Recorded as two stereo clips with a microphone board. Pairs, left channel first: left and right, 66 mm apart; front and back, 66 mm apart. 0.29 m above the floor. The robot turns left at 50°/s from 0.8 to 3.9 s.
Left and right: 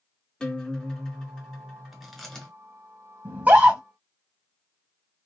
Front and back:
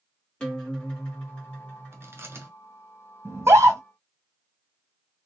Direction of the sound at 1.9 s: 170° right.